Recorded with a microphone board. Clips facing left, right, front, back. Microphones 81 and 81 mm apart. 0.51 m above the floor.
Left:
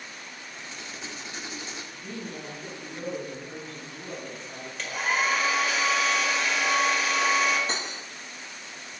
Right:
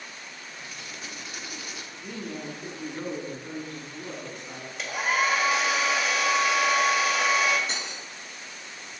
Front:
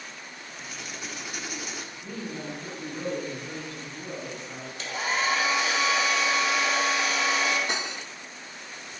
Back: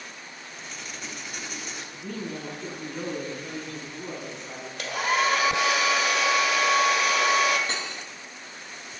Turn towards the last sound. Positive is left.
turn(degrees=65)